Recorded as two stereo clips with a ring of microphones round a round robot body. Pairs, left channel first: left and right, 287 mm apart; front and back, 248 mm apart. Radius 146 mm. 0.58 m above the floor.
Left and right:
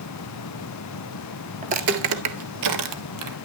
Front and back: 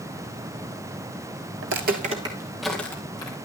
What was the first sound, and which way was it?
Footsteps, 150° right.